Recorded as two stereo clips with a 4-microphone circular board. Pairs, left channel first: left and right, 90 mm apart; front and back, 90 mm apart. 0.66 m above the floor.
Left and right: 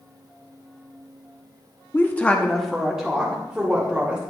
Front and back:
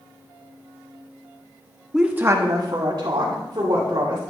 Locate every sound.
1.9 s a woman speaking: 95° left, 0.8 m; by 4.2 s 165° right, 2.5 m